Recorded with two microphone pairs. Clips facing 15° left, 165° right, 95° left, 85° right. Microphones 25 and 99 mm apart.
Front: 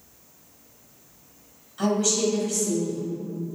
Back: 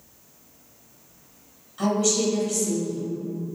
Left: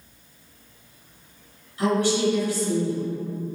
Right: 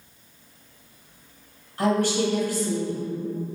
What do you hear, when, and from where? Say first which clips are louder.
1.8 s a woman speaking: back 1 dB, left 1 dB; 75° right, 2 m